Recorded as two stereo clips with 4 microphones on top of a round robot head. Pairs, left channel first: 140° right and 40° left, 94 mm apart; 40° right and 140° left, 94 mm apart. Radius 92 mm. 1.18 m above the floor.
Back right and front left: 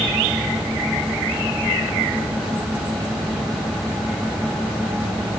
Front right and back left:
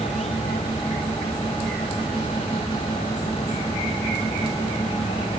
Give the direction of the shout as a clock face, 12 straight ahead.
I don't hear a shout.